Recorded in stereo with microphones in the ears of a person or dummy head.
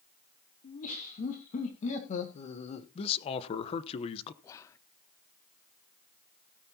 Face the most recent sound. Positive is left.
turn(degrees=20)  # may be behind; listen again after turning